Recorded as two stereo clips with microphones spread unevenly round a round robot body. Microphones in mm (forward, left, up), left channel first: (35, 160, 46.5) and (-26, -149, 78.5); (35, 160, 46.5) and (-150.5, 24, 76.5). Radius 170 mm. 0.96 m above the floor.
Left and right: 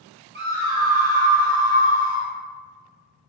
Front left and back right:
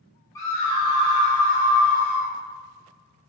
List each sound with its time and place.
0.3 s a scream: 40° right, 0.8 m; by 2.3 s 105° right, 1.8 m